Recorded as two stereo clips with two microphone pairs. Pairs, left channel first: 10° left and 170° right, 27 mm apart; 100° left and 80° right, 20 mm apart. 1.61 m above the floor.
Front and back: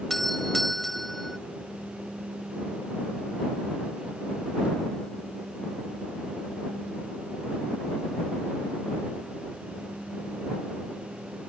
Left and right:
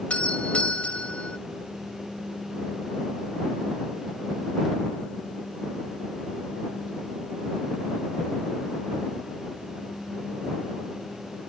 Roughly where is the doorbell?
Left.